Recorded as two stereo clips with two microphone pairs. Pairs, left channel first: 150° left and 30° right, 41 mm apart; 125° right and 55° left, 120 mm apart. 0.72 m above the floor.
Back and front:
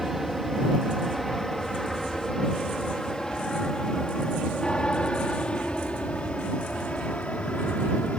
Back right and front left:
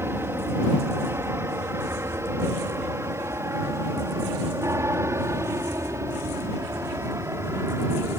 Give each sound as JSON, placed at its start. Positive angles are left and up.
{"t": 0.0, "sound": "an aircraft", "azimuth_deg": 45}